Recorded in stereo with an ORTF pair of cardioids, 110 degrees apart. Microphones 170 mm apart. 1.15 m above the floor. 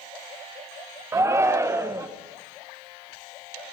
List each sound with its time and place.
1.1 s a shout: 15° right, 0.6 m